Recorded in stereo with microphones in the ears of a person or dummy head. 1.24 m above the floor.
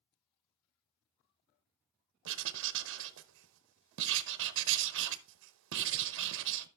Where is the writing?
65° right (ahead or behind), 0.8 m.